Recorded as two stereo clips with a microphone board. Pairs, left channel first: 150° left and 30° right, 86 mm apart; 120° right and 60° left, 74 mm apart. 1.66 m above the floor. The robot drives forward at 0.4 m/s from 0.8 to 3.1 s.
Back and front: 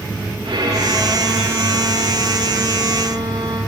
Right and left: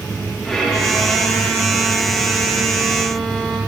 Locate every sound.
0.4 s a violin: 35° right, 7.5 m; by 3.6 s 40° right, 6.5 m